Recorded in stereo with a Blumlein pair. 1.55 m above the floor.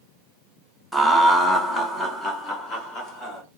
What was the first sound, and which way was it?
Laughter, straight ahead.